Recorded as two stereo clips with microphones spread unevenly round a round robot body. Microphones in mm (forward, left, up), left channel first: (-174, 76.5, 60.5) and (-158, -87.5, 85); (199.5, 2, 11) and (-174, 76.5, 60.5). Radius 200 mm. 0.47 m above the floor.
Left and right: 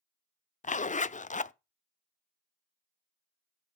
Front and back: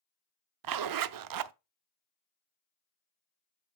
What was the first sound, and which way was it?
A zipper, 130° left.